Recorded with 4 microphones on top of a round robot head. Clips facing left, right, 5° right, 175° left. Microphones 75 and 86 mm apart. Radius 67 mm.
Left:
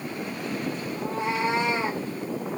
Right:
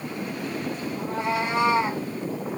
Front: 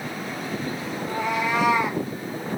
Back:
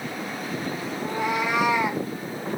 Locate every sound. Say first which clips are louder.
1.0 s a cat meowing: right 1 dB, even; 65° right, 9.5 m; by 2.0 s 70° right, 9.5 m